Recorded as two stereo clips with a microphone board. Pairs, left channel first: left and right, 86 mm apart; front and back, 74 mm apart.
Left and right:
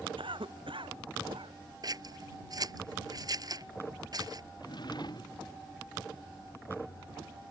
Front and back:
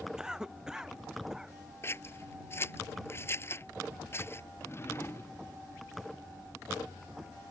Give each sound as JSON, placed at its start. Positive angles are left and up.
{"t": 0.2, "sound": "a cough", "azimuth_deg": -100}
{"t": 1.8, "sound": "scissors", "azimuth_deg": -55}
{"t": 4.6, "sound": "a drawer", "azimuth_deg": 55}